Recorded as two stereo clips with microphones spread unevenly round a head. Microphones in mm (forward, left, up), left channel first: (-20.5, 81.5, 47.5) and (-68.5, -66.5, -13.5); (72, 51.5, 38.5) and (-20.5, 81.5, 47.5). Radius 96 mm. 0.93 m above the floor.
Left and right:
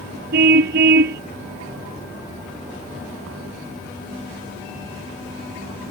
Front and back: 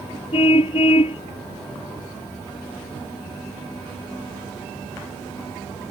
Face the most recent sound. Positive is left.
turn(degrees=-70)